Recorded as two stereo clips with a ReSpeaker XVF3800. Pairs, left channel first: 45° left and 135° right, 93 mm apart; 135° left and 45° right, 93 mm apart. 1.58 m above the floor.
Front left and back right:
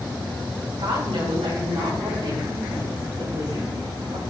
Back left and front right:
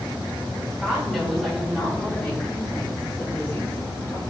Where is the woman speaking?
130° right, 4.5 m; by 4.2 s 155° right, 7.5 m.